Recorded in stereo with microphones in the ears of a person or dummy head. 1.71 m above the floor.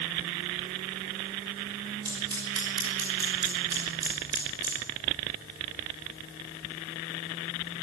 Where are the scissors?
25° right (ahead or behind), 6.5 m.